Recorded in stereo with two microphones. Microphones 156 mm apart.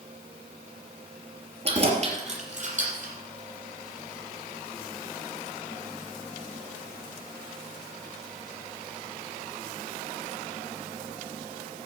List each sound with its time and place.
1.6 s keys jangling: 40° right (ahead or behind), 3 m; by 3.1 s 60° right (ahead or behind), 5 m